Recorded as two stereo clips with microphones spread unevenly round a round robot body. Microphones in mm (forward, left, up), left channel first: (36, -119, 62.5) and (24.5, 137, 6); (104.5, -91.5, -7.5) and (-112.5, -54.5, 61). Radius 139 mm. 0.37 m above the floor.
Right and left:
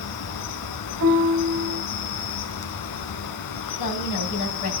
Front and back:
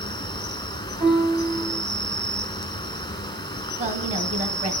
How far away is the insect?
About 1.0 m.